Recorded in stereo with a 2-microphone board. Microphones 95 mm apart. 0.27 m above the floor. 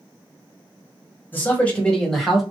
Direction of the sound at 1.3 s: 20° left (ahead or behind).